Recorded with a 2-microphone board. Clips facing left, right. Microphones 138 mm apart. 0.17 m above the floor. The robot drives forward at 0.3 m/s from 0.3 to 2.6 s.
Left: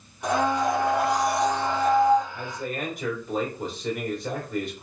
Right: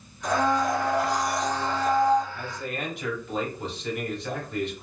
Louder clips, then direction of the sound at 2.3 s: Left 2 dB; 50° left (ahead or behind).